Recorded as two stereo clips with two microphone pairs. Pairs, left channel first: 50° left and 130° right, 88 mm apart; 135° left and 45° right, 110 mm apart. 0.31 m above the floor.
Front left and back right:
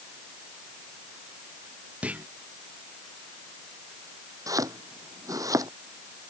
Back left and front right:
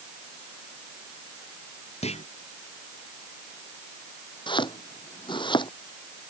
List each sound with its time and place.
2.0 s a clunk: 155° left
4.5 s chopping: straight behind